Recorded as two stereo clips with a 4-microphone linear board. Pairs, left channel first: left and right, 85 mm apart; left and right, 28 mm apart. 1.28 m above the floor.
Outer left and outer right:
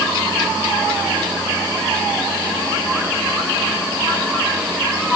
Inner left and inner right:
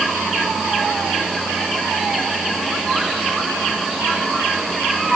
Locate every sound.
Only background noise.